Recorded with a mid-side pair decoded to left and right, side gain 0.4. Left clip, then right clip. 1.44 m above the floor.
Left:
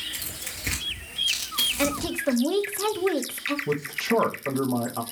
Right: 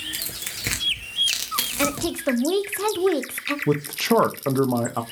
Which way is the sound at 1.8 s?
20° right.